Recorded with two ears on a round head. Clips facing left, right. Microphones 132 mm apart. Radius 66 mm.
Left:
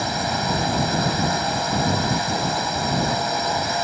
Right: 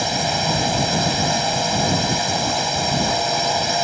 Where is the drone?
25° right (ahead or behind).